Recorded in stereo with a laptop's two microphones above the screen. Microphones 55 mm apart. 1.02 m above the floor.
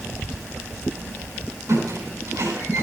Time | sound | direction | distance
1.7 | a squeak | 65° right (ahead or behind) | 4 m